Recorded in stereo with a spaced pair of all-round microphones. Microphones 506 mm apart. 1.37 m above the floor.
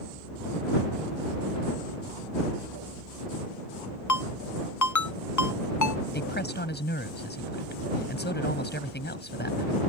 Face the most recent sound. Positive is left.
turn(degrees=20)  # may be behind; listen again after turning